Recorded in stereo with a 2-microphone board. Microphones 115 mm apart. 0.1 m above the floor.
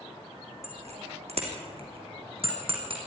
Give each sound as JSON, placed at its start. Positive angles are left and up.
{"t": 0.6, "sound": "a bicycle bell", "side_deg": -70, "distance_m": 4.0}